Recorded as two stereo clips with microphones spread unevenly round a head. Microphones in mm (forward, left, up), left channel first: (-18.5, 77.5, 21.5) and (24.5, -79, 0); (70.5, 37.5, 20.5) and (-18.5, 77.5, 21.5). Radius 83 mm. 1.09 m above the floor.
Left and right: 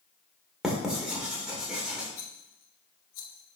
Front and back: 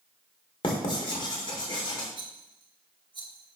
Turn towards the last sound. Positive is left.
turn(degrees=115)